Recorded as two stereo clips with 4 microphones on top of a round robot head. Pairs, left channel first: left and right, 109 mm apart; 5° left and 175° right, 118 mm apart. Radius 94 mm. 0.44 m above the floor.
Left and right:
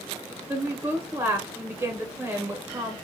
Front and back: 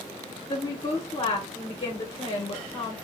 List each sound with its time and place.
0.5 s a woman speaking: 35° right, 1.0 m